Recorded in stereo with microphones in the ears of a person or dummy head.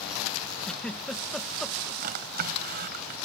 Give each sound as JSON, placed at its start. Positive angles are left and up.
{"t": 0.6, "sound": "a giggle", "side_deg": 10}
{"t": 2.0, "sound": "a drawer", "side_deg": -45}